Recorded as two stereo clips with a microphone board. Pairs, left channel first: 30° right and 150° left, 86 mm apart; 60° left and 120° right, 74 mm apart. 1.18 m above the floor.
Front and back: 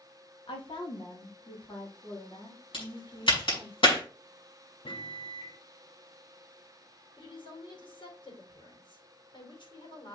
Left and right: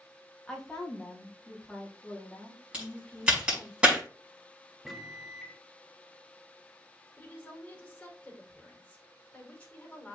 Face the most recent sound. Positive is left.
turn(degrees=-15)